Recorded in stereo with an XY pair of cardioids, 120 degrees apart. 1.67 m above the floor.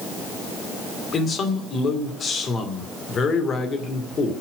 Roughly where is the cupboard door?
I don't hear a cupboard door.